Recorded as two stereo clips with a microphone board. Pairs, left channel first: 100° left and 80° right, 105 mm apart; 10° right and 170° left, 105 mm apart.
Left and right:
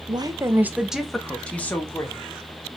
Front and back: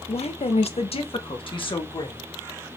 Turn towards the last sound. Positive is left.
turn(degrees=30)